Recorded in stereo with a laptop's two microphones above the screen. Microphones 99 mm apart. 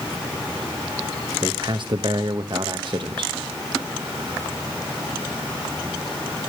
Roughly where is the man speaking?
Right.